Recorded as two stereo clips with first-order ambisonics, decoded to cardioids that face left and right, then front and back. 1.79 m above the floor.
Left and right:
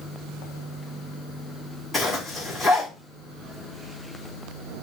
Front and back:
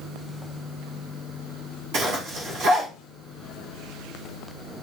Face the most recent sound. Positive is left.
turn(degrees=165)